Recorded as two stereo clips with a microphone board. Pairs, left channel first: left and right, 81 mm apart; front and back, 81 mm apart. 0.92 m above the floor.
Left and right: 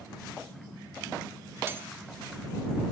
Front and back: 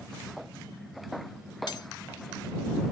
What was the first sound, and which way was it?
Cutlery clinking, 30° right.